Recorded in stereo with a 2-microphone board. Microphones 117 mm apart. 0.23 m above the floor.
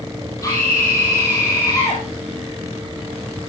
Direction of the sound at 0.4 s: 30° left (ahead or behind).